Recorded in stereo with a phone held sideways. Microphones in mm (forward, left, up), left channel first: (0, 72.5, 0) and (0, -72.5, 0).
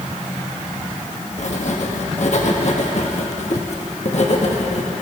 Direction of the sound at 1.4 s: 55° left (ahead or behind).